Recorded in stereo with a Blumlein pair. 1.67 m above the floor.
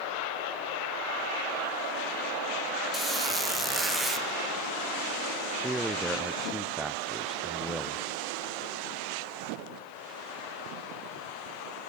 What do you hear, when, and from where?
2.9 s a squeak: 10° right, 1.7 m
5.6 s a man speaking: 5° right, 0.6 m